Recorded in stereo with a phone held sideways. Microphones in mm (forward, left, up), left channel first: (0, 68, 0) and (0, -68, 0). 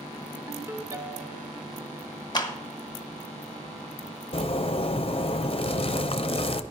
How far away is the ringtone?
About 0.8 m.